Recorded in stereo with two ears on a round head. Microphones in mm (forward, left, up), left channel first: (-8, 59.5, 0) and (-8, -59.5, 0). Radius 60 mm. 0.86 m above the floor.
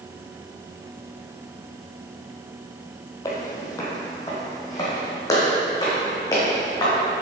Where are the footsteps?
25° left (ahead or behind), 1.3 m.